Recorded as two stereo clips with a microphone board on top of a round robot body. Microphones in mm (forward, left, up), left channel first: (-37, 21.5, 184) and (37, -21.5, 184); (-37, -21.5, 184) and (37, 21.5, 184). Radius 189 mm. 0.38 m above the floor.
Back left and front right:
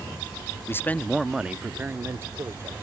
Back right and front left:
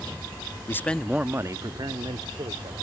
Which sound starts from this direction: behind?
A man speaking, at 0.7 s.